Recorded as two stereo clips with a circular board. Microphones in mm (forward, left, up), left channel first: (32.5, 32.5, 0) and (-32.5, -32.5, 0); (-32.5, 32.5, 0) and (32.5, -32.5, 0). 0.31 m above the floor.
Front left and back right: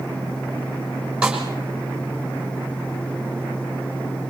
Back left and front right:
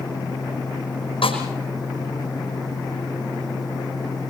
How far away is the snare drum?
About 5 m.